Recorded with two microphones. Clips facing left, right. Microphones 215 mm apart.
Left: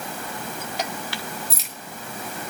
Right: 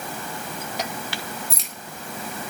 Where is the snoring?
I don't hear snoring.